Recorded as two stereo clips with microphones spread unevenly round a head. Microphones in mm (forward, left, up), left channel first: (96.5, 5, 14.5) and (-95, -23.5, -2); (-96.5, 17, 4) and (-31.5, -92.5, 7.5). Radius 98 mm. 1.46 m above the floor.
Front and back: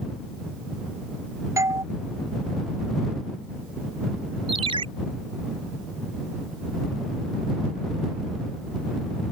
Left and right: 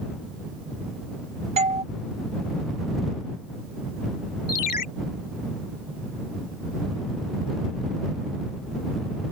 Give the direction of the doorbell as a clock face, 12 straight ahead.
3 o'clock.